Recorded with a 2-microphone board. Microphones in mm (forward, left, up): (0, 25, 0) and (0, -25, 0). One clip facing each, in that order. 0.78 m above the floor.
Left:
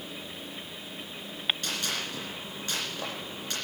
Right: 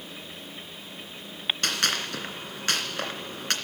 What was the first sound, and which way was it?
A gunshot, 70° right (ahead or behind).